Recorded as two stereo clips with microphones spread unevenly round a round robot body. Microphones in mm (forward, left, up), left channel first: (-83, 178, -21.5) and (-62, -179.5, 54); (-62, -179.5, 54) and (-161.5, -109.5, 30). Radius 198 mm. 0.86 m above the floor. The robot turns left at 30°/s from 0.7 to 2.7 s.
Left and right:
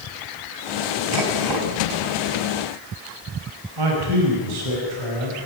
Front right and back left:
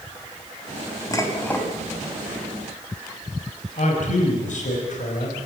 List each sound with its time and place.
1.1 s dishes clattering: 95° right, 4 m; by 1.7 s 115° right, 4 m
3.8 s a man speaking: 50° right, 5.5 m